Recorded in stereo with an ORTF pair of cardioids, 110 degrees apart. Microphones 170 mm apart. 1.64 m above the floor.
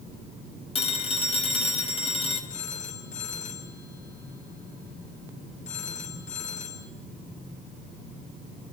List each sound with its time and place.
0.8 s a phone ringing: 35° left, 5 m
2.5 s a phone ringing: 45° left, 8 m